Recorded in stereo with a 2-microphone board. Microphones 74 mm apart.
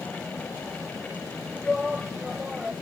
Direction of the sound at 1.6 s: 5° right (ahead or behind).